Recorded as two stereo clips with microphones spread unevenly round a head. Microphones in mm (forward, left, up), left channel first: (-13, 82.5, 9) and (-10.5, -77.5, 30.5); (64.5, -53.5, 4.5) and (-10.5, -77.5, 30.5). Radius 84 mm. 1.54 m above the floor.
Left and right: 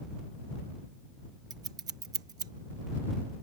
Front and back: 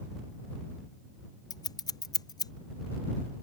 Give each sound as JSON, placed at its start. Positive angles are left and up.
{"t": 1.5, "sound": "scissors", "azimuth_deg": -20}